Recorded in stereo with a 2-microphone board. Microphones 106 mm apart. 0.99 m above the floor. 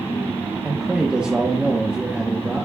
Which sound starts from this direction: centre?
A man speaking, at 0.6 s.